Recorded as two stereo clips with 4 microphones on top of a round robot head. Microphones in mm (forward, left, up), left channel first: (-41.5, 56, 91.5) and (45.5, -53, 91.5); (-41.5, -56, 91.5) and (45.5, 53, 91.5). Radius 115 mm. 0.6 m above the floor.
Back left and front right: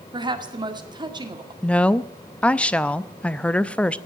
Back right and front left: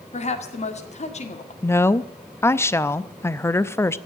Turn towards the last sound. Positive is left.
turn(degrees=-160)